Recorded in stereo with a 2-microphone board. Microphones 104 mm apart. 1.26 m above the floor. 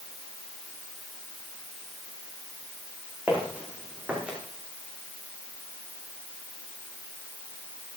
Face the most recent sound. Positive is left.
turn(degrees=-10)  # may be behind; listen again after turning